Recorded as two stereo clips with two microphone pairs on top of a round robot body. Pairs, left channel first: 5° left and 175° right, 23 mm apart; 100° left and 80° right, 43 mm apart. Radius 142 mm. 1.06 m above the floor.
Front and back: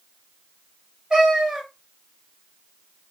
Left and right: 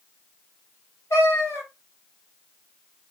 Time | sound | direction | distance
1.1 | a cat meowing | 120° left | 1.8 m